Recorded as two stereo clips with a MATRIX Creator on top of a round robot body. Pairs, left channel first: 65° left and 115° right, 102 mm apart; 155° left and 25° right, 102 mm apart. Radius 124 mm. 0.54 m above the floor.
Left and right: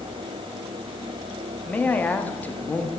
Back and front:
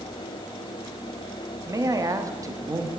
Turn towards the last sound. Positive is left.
turn(degrees=5)